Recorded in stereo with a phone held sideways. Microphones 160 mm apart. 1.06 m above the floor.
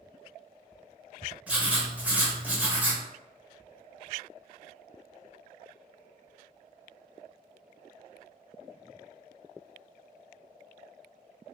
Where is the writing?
10° right (ahead or behind), 0.8 m.